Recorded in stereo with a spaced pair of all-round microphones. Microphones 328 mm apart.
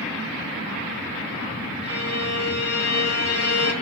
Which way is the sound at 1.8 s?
45° left (ahead or behind).